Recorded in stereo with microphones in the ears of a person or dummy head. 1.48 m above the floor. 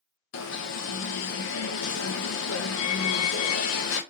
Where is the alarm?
75° left (ahead or behind), 0.8 m.